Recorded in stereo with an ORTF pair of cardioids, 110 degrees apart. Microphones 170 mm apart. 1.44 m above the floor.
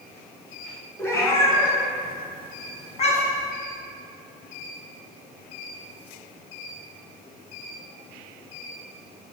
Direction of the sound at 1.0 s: 15° left.